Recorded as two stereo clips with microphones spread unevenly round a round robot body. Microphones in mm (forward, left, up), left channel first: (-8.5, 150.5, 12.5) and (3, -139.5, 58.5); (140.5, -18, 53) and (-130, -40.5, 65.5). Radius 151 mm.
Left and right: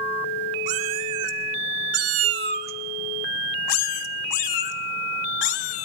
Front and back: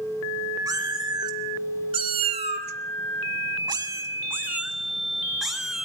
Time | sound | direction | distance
0.7 | a cat meowing | 100° right | 2 m